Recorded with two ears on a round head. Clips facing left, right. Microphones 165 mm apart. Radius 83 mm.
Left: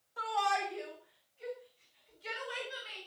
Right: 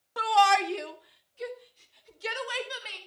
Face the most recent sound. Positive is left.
turn(degrees=-75)  # may be behind; listen again after turning